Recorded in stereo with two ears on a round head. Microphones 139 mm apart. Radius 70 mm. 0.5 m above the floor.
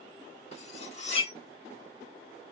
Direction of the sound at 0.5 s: 45° left (ahead or behind).